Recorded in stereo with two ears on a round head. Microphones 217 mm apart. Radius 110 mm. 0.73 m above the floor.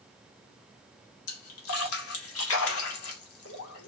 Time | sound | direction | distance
1.3 | a splash | 65° left (ahead or behind) | 2.5 m